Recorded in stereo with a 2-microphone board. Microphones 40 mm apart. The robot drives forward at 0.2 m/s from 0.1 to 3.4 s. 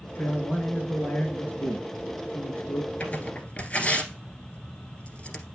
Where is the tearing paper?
35° left (ahead or behind), 1.6 m.